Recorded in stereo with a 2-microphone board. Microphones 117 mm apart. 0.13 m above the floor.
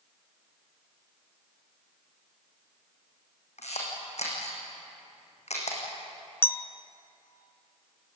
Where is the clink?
20° left (ahead or behind), 0.7 m.